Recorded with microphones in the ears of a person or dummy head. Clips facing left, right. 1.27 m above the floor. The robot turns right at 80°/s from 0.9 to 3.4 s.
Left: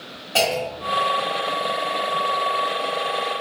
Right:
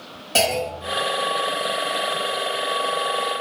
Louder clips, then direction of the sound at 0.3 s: Even; 40° right (ahead or behind).